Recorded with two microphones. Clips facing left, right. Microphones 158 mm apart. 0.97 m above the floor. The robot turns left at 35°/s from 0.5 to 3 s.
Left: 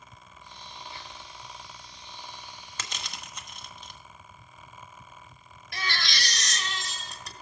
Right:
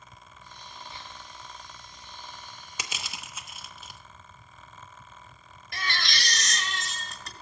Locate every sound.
0.9 s whispering: 25° right (ahead or behind), 6.5 m; by 1.3 s 10° right (ahead or behind), 6.5 m
2.8 s crushing: 10° right (ahead or behind), 0.9 m; by 4.0 s 5° right (ahead or behind), 0.9 m
5.7 s a baby crying: centre (ahead or behind), 1.5 m